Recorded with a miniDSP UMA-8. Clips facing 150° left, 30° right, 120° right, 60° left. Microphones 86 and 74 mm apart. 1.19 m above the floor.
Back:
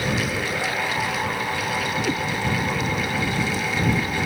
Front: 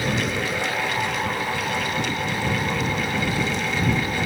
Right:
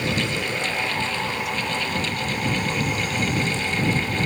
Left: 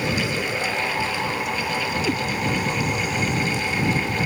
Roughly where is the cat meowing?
Left.